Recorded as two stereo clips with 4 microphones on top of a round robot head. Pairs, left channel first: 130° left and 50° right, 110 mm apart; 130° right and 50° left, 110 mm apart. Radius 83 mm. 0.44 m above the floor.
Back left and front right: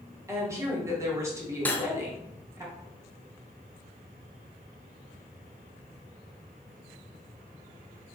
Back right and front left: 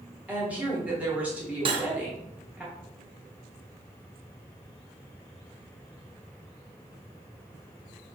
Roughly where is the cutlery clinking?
Ahead left.